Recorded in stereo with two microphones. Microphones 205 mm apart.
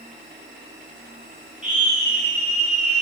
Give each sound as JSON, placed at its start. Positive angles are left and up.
{"t": 1.6, "sound": "a scream", "side_deg": -40, "distance_m": 9.5}